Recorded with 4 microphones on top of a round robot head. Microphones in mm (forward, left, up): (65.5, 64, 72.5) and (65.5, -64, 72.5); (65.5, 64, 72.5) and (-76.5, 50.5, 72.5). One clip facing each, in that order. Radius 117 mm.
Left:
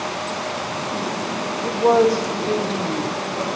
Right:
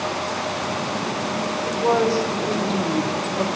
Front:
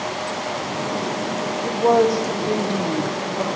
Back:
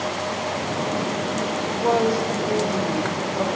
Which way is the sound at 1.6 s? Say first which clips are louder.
Left 5 dB, front 5 dB; 35° left.